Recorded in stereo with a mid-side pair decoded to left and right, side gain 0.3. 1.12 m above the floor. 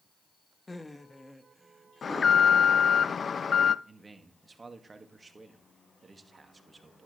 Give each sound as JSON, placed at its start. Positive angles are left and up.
{"t": 0.7, "sound": "laughter", "azimuth_deg": 30, "distance_m": 1.0}
{"t": 2.0, "sound": "an alarm", "azimuth_deg": 55, "distance_m": 0.6}
{"t": 3.9, "sound": "a man speaking", "azimuth_deg": -40, "distance_m": 2.0}